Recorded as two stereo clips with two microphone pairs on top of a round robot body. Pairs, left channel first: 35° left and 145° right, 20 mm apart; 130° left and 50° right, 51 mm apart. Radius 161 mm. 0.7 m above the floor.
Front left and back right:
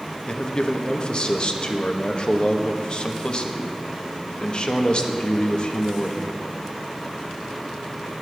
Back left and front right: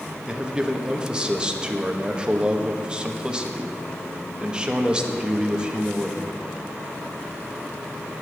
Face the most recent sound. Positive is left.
turn(degrees=15)